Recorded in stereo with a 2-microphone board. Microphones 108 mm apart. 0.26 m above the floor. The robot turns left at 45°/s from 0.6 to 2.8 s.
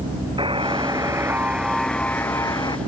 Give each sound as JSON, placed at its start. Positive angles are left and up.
{"t": 0.4, "sound": "a buzzer", "azimuth_deg": -125}